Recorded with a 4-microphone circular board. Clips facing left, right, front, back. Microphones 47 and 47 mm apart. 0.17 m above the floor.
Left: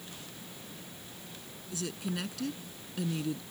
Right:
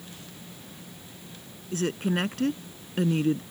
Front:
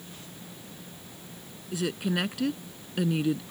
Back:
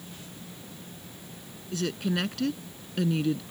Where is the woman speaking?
80° right.